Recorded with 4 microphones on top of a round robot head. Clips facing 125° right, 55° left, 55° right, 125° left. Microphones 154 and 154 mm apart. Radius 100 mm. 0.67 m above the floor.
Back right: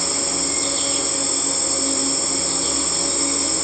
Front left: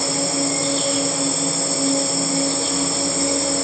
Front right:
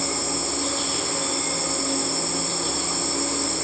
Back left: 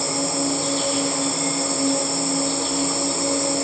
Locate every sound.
0.0 s an insect: 95° left, 6 m